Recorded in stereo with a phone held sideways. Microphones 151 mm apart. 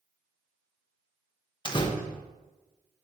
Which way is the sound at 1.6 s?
30° left (ahead or behind).